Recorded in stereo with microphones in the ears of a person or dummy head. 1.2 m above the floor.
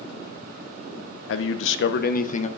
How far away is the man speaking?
About 0.8 m.